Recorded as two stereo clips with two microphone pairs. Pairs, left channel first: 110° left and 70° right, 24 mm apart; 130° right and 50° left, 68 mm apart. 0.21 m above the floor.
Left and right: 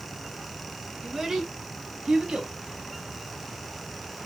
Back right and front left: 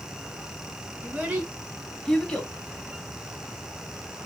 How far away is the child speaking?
About 1.5 m.